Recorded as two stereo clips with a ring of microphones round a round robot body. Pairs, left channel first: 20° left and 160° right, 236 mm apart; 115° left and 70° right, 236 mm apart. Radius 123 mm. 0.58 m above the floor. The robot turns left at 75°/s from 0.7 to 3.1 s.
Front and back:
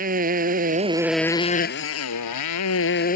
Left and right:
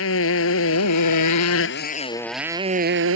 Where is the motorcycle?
145° left; by 3.2 s 35° right.